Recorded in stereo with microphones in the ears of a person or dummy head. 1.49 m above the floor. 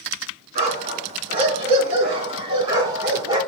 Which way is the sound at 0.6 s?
45° right (ahead or behind).